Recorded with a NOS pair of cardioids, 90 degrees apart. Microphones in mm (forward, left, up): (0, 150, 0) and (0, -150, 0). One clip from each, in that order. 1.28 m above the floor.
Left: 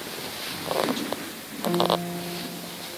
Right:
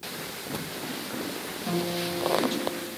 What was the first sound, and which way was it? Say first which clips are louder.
A guitar: left 7 dB; 45° left.